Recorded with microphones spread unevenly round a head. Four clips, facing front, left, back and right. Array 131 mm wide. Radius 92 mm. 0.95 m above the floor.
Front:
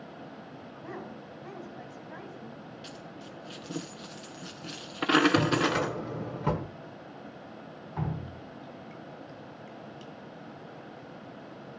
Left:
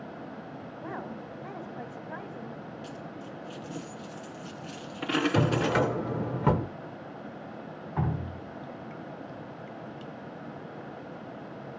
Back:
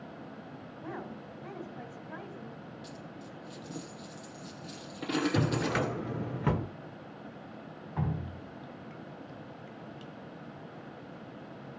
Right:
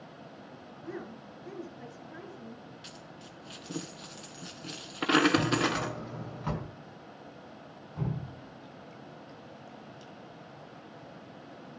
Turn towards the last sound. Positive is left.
turn(degrees=80)